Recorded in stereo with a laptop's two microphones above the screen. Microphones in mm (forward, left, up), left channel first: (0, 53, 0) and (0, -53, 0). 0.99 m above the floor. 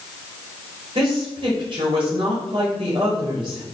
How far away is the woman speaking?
About 5.5 m.